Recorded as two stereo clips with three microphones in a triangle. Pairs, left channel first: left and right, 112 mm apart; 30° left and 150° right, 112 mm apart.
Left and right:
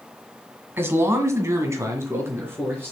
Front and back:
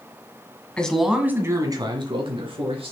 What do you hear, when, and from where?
0.8 s a man speaking: 40° right, 1.6 m; by 2.9 s 160° right, 3 m